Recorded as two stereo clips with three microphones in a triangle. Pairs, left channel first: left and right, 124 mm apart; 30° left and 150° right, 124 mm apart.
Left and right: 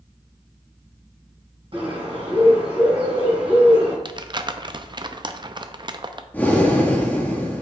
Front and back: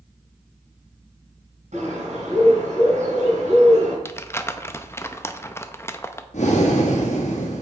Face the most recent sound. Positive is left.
turn(degrees=15)